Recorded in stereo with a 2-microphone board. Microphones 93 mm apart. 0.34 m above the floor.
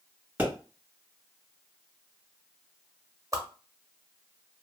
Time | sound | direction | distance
0.4 | a pop | 20° right (ahead or behind) | 2 m
3.3 | a whoosh | 35° right (ahead or behind) | 0.8 m